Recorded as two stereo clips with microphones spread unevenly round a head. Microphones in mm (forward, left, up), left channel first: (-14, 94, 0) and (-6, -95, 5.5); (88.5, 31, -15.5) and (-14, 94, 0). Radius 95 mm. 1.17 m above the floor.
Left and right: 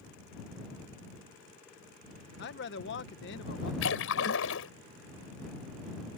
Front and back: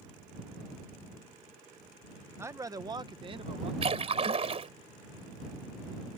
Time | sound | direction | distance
2.4 | a man speaking | 75° left | ?
3.8 | a splash | 115° left | ?